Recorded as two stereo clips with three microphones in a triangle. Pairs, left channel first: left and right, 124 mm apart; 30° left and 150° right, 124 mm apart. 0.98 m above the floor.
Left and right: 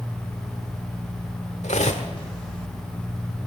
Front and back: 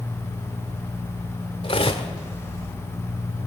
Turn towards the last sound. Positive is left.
turn(degrees=70)